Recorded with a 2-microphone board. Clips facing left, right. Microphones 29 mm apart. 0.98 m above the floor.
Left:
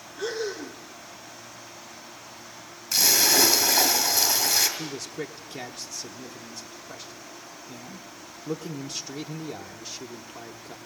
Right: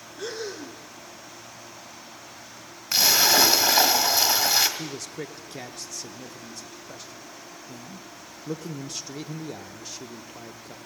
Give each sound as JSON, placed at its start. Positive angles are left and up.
{"t": 0.2, "sound": "breathing", "side_deg": 0, "distance_m": 1.0}
{"t": 2.9, "sound": "a splash", "side_deg": -30, "distance_m": 2.0}
{"t": 4.8, "sound": "a man speaking", "side_deg": 0, "distance_m": 0.8}